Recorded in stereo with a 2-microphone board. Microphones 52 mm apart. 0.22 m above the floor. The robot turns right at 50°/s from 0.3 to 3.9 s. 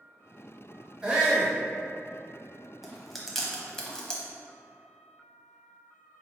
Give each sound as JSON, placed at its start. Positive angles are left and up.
{"t": 1.0, "sound": "a shout", "side_deg": -20, "distance_m": 1.0}
{"t": 2.8, "sound": "chewing", "side_deg": -5, "distance_m": 0.7}